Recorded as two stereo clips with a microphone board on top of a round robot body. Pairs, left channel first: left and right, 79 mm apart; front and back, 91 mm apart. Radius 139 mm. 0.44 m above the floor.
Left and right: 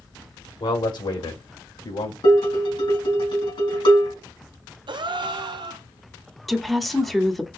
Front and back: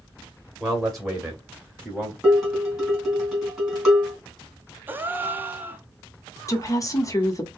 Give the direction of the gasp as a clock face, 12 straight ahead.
4 o'clock.